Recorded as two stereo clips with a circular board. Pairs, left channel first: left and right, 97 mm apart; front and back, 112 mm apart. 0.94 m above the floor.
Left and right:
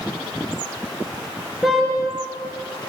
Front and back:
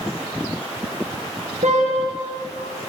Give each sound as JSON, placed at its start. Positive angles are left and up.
{"t": 1.6, "sound": "a car horn", "azimuth_deg": 180, "distance_m": 8.5}